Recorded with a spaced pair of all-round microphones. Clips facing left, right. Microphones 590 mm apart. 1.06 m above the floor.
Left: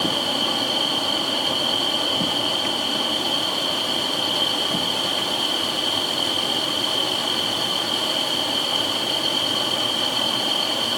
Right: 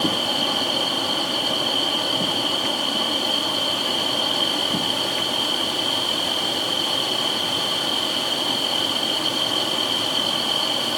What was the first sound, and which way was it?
Only background noise.